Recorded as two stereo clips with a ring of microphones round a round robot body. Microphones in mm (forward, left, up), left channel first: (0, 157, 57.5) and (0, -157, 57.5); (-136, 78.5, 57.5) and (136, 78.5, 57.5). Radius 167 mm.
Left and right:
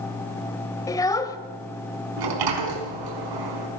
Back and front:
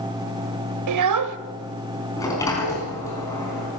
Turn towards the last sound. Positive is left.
turn(degrees=-100)